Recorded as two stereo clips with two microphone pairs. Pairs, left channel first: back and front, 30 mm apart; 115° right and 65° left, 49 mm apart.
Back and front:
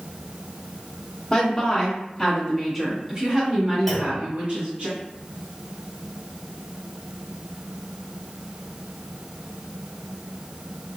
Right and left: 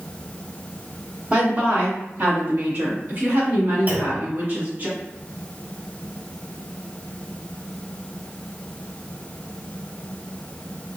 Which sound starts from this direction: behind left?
A woman speaking, at 1.3 s.